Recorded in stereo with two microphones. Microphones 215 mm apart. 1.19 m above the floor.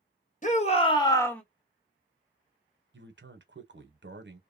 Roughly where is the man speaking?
Right.